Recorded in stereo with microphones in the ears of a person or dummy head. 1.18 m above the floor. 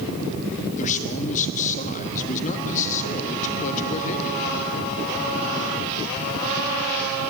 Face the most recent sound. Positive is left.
turn(degrees=40)  # may be behind; listen again after turning